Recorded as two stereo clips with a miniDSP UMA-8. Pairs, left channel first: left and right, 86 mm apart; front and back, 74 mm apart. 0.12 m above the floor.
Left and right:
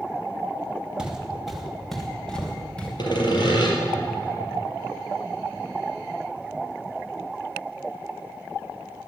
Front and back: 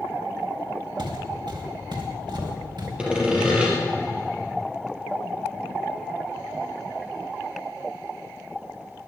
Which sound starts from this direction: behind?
Footsteps, at 1.0 s.